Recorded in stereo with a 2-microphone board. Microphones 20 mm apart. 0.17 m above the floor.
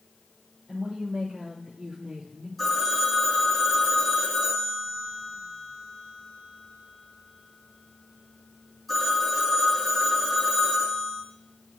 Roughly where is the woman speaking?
Right.